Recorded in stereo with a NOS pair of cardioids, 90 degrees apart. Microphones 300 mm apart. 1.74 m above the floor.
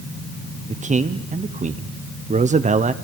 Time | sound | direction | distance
0.7 | a man speaking | 25° right | 1.2 m